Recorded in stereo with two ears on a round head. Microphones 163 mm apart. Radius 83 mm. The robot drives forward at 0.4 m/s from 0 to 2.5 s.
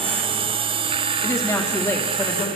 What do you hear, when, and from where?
1.2 s a woman speaking: 15° left (ahead or behind), 3 m